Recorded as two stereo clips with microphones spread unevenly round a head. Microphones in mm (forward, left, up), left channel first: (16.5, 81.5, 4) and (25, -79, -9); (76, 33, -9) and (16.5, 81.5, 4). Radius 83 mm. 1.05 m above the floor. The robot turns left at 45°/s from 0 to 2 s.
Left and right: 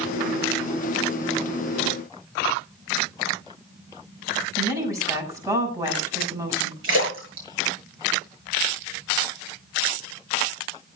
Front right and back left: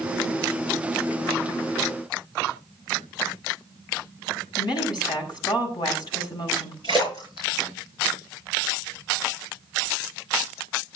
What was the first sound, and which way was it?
A woman speaking, 15° right.